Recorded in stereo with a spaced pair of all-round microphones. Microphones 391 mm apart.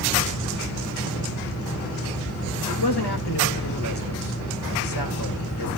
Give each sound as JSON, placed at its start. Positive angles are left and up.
{"t": 2.7, "sound": "a man speaking", "side_deg": 80, "distance_m": 2.0}